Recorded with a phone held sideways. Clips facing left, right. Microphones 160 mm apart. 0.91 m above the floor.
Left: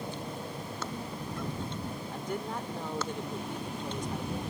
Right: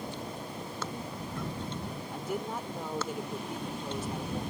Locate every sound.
2.1 s a woman speaking: 5° right (ahead or behind)